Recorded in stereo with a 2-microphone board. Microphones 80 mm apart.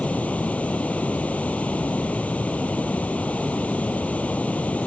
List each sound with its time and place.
0.0 s running water: 20° left (ahead or behind)